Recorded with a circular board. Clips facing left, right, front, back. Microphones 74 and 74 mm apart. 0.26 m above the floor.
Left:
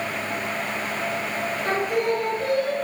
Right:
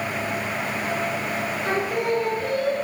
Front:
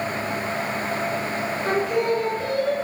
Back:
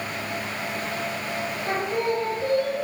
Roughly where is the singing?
Ahead.